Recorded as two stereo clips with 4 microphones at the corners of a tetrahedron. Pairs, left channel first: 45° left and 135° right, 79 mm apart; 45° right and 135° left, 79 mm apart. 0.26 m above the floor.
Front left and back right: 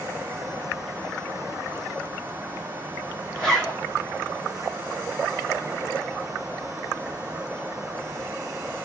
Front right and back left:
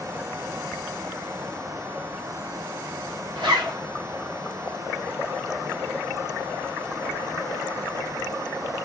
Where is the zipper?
125° left, 1.2 m.